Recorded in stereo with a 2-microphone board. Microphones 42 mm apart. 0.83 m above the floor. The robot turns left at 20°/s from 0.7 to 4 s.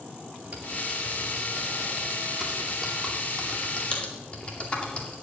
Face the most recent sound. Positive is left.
turn(degrees=30)  # may be behind; listen again after turning